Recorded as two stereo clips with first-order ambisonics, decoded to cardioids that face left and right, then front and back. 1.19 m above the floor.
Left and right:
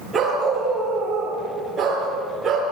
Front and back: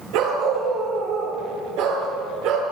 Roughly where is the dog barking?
Behind.